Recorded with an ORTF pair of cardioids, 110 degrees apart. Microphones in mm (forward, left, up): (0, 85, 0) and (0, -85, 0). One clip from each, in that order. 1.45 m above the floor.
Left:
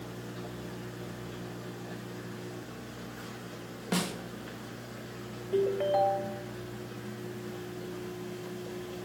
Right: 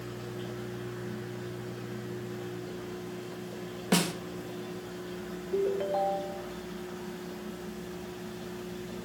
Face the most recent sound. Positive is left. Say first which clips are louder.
# left 2 dB
turn(degrees=15)